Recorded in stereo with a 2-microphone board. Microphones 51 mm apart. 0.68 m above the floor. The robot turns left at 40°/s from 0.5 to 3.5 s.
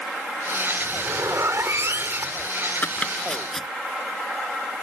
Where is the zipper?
70° right; by 2.5 s 140° right.